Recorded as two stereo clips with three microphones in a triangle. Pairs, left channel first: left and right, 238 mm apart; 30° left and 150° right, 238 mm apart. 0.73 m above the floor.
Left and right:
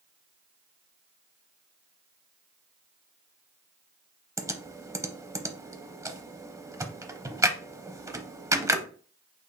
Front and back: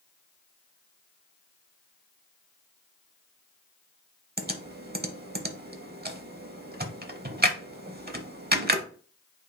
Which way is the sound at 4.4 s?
160° right.